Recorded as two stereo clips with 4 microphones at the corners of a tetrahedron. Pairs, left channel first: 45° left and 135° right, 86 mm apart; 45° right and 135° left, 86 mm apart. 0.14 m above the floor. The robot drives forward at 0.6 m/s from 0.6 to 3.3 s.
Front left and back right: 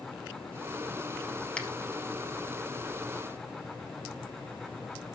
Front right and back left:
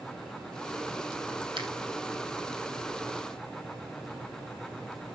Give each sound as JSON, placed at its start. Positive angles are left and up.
{"t": 1.6, "sound": "a finger snap", "azimuth_deg": 120, "distance_m": 3.0}